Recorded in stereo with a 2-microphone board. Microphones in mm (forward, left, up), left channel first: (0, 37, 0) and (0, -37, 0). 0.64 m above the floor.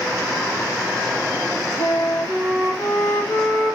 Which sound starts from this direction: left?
A flute, at 1.8 s.